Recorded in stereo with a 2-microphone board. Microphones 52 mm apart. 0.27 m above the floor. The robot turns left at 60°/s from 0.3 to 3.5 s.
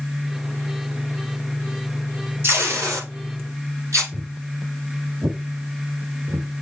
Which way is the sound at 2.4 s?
50° right (ahead or behind).